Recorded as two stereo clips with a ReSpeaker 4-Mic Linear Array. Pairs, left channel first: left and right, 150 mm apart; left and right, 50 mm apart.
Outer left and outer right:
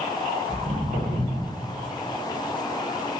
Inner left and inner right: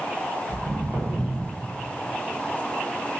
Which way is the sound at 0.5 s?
45° right (ahead or behind).